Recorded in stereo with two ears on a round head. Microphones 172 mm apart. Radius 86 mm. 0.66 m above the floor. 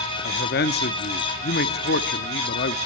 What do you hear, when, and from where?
0.2 s a man speaking: 55° left (ahead or behind), 0.9 m